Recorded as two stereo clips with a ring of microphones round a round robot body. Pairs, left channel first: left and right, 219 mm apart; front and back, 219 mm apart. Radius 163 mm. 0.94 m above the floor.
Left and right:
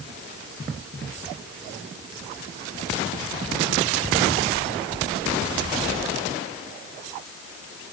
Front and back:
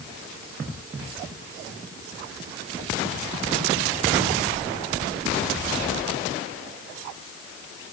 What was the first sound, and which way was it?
Only background noise.